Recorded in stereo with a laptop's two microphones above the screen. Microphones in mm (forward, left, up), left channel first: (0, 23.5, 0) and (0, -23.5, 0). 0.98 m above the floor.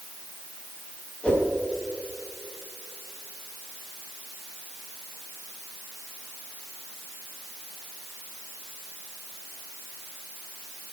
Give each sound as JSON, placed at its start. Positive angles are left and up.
{"t": 1.2, "sound": "a whoosh", "side_deg": 25, "distance_m": 3.5}